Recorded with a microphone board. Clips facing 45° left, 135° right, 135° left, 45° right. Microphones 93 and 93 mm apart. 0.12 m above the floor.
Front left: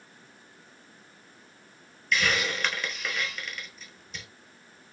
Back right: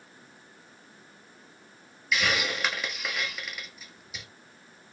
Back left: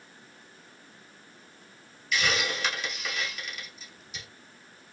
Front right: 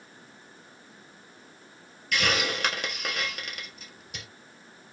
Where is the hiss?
55° right, 1.0 m.